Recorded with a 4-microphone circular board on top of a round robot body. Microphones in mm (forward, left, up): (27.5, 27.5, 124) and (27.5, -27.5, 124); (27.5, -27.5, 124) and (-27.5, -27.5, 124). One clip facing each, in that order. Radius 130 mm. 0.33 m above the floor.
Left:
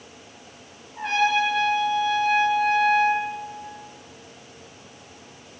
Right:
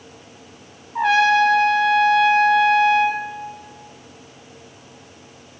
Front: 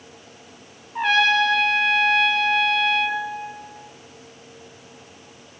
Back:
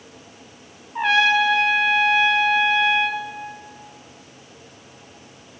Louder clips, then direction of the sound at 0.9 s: Right 7 dB, back 1 dB; 95° right.